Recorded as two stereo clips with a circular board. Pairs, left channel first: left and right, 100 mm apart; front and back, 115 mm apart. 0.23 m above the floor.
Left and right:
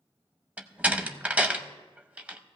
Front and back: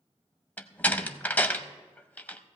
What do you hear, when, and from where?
0.6 s a door slam: 45° right, 0.7 m